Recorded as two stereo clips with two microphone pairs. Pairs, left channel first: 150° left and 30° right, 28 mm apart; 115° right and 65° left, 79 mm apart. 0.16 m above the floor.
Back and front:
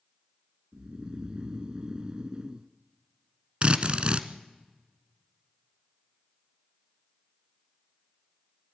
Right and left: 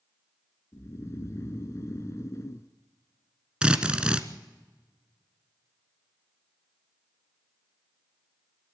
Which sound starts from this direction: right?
Snoring, at 0.7 s.